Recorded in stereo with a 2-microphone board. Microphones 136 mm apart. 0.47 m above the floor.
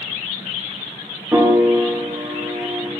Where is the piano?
15° right (ahead or behind), 1.2 m.